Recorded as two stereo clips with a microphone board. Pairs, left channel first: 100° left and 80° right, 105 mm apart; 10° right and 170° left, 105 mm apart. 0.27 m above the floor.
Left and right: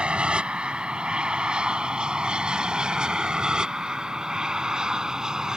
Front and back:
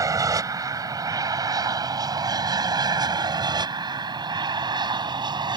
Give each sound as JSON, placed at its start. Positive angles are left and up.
{"t": 0.0, "sound": "an aircraft", "azimuth_deg": -155}